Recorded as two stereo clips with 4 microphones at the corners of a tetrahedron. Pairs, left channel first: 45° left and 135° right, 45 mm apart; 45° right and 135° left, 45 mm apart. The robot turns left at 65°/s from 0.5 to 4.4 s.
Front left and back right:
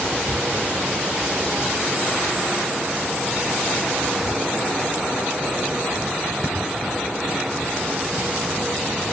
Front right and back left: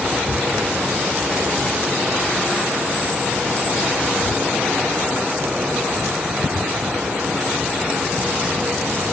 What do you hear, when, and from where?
0.2 s a cupboard door: 75° right, 5.5 m